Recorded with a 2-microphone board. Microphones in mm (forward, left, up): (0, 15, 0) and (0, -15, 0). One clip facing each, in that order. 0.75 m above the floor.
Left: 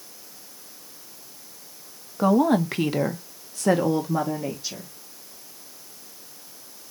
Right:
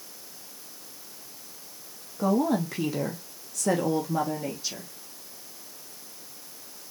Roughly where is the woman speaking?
Left.